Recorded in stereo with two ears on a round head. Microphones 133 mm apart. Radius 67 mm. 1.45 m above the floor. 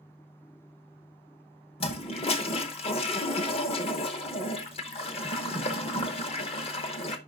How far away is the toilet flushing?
About 0.9 m.